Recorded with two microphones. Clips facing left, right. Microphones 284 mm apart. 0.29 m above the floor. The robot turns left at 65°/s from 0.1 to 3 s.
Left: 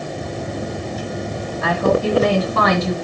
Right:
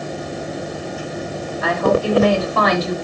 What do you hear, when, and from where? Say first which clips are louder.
1.6 s a woman speaking: even; 175° right, 1.9 m; by 3.0 s 95° left, 1.9 m